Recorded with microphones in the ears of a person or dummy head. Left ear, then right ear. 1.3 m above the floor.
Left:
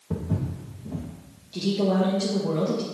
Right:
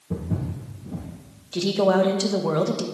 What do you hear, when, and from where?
0.1 s footsteps: 35° left (ahead or behind), 1.8 m
1.5 s a woman speaking: 50° right (ahead or behind), 1.0 m